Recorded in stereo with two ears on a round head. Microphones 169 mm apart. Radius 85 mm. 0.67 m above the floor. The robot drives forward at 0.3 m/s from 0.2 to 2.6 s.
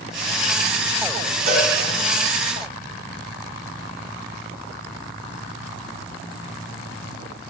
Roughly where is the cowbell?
Right.